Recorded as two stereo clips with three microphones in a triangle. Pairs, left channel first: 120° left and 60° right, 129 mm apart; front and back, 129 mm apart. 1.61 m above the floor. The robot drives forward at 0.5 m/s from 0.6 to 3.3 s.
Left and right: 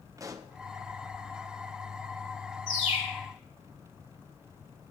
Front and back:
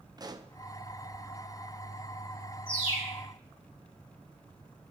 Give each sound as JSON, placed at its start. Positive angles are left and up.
{"t": 0.2, "sound": "a pop", "azimuth_deg": -120, "distance_m": 0.8}
{"t": 2.7, "sound": "a bird", "azimuth_deg": 115, "distance_m": 3.0}